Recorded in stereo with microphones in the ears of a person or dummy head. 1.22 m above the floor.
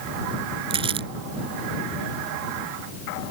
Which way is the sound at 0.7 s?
25° right (ahead or behind).